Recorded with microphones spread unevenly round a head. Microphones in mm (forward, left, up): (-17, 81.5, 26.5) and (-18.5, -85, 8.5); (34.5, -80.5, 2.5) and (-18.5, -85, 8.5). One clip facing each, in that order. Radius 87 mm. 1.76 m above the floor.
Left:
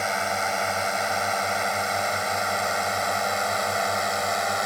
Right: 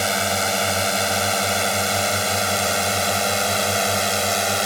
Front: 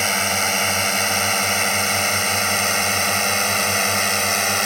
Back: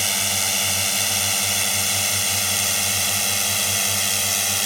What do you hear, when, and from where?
0.0 s a drone: 35° right; by 4.7 s 30° right